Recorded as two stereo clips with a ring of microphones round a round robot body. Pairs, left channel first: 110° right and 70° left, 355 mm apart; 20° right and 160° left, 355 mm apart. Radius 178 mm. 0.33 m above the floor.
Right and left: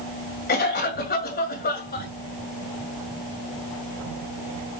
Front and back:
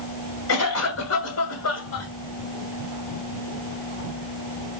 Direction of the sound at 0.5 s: 55° right.